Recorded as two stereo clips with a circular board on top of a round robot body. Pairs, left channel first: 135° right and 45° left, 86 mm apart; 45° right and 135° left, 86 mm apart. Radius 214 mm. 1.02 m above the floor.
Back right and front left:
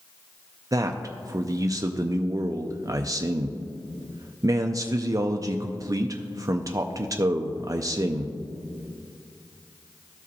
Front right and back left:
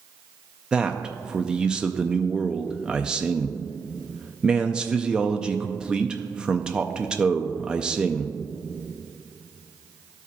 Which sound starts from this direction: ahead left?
A man speaking, at 0.7 s.